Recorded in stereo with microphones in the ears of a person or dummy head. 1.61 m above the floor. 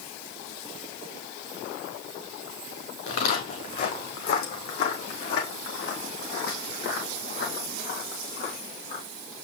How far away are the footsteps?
About 3.5 m.